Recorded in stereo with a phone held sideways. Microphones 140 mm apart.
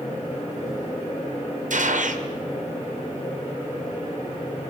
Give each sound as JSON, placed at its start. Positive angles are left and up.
{"t": 0.0, "sound": "a fan", "side_deg": 60, "distance_m": 7.5}
{"t": 1.7, "sound": "a gunshot", "side_deg": -70, "distance_m": 0.8}